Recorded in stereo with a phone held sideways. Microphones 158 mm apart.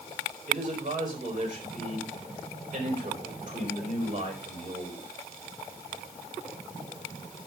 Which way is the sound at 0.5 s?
55° right (ahead or behind).